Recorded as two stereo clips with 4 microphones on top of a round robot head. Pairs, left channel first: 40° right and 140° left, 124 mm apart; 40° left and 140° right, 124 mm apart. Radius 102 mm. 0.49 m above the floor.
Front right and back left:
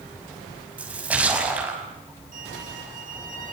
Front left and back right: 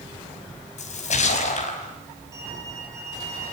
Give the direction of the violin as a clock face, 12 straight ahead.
7 o'clock.